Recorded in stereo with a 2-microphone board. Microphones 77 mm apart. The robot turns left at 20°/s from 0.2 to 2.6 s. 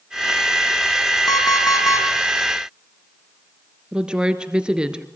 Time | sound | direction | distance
1.3 | an alarm clock | 60° left (ahead or behind) | 4 m
3.9 | a woman speaking | 10° right (ahead or behind) | 2.0 m